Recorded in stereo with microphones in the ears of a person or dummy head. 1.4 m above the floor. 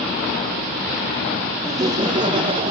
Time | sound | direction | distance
1.6 | laughter | 20° right (ahead or behind) | 1.1 m